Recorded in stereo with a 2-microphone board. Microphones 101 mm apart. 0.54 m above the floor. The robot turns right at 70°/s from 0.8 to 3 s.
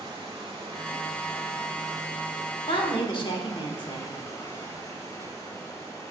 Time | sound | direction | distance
0.0 | running water | 120° right | 1.6 m
2.7 | a woman speaking | 55° left (ahead or behind) | 1.1 m